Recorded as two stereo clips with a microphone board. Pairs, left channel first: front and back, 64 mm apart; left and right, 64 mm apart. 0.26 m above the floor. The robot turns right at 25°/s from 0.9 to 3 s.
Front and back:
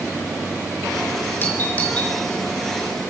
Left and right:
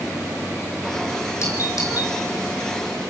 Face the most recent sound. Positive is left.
turn(degrees=95)